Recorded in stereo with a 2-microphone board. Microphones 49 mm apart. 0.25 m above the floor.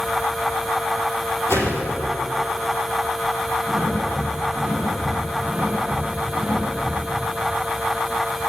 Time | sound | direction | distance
1.5 | a whoosh | 60° left (ahead or behind) | 8.5 m
3.7 | breathing | 20° right (ahead or behind) | 8.5 m